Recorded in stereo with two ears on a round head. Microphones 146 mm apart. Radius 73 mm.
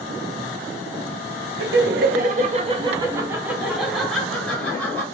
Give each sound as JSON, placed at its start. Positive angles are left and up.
{"t": 1.6, "sound": "laughter", "side_deg": -80, "distance_m": 1.1}